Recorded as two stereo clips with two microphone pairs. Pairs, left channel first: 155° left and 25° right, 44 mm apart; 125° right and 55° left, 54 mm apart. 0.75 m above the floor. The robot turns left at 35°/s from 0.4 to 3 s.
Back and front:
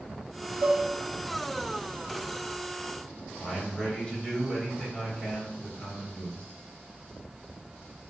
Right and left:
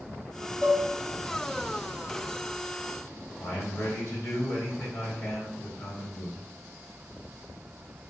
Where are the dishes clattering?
25° right, 0.8 m; by 0.9 s 35° right, 0.8 m.